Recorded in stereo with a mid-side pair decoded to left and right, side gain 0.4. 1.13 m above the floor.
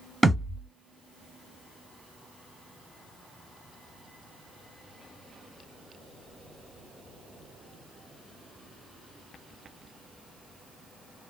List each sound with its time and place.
0.2 s a thud: 15° right, 1.4 m